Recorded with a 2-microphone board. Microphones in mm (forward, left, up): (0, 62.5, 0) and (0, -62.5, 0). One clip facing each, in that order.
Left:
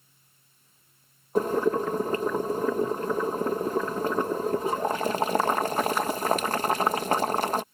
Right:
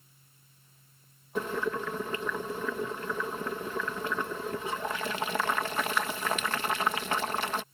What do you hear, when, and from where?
1.4 s boiling: 40° left (ahead or behind)